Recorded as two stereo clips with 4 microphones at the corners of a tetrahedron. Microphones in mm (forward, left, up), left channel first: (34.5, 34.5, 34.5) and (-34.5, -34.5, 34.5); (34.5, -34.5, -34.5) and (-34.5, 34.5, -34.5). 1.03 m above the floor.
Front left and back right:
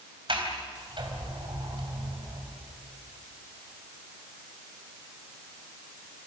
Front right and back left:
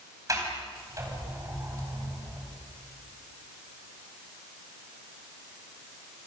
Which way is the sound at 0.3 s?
170° right.